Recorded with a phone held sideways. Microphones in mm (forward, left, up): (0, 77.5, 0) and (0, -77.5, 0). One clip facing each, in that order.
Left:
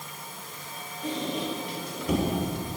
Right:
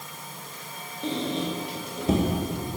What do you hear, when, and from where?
1.0 s a squeak: 25° right (ahead or behind), 3.5 m